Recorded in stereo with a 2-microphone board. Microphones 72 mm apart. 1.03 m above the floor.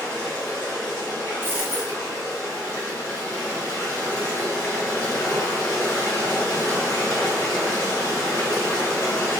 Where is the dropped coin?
25° right (ahead or behind), 0.7 m.